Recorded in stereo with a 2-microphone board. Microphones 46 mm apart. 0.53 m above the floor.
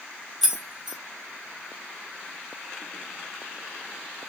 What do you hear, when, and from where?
0.4 s keys jangling: 5° right (ahead or behind), 0.6 m